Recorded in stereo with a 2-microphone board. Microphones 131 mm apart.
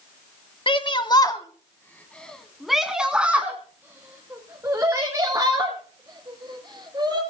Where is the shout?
45° left (ahead or behind), 1.4 m; by 7.2 s 30° right (ahead or behind), 4.5 m.